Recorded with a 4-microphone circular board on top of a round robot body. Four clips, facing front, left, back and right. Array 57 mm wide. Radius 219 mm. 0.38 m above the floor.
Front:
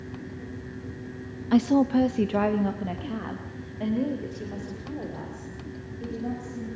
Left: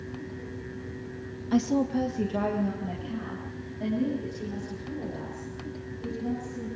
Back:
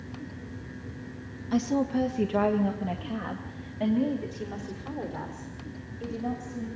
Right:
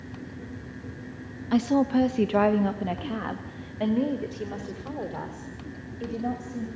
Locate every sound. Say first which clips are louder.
1.5 s a woman speaking: right 3 dB, front 6 dB; 30° right, 1.2 m; by 6.7 s 105° right, 4.5 m